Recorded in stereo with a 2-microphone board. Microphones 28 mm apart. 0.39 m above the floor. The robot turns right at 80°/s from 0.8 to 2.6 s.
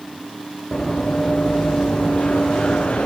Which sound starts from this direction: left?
Running footsteps, at 0.7 s.